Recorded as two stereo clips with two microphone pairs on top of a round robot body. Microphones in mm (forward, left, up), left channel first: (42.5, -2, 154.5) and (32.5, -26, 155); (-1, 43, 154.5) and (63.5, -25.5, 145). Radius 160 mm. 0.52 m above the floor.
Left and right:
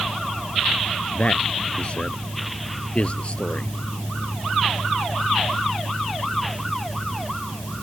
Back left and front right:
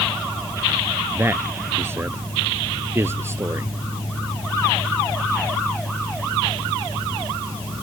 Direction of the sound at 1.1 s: 20° left.